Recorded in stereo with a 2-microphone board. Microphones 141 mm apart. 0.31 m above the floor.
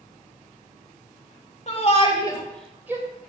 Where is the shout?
50° left (ahead or behind), 1.6 m; by 3.0 s 25° right (ahead or behind), 1.2 m.